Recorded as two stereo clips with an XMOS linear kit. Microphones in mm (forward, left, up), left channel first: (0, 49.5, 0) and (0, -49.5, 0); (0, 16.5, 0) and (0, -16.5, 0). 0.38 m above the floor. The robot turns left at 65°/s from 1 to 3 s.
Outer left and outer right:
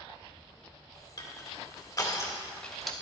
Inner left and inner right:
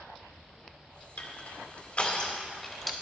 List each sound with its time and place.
1.2 s crushing: 45° left (ahead or behind), 2 m; by 2.9 s centre (ahead or behind), 2 m